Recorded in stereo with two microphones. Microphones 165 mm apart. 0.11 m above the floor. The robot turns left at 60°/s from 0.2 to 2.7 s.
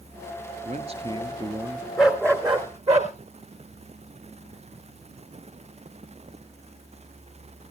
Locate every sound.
0.7 s a man speaking: 100° right, 1.6 m; by 1.9 s 175° right, 1.6 m
2.0 s a dog barking: straight ahead, 3 m; by 3.1 s 45° right, 3 m